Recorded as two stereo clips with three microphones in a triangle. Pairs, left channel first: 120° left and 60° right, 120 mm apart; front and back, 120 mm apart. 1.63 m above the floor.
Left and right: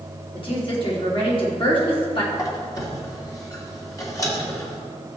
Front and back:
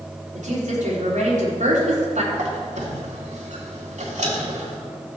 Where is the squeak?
Straight behind, 2 m.